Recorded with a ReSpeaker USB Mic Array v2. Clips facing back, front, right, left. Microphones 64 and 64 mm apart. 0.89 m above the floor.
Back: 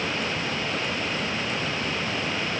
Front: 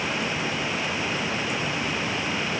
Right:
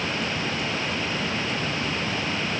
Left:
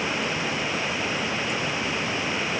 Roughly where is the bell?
No bell in this recording.